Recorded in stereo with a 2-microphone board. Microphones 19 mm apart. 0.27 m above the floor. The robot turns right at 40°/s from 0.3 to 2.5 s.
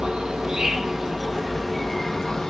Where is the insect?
50° right, 0.9 m; by 2.5 s 35° left, 0.9 m.